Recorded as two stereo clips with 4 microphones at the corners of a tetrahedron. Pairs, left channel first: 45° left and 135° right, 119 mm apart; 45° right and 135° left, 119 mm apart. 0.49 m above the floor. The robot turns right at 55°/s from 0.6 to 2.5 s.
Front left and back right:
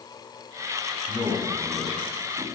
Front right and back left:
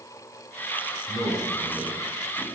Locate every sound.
1.1 s a man speaking: 170° left, 1.2 m; by 2.4 s 115° right, 1.2 m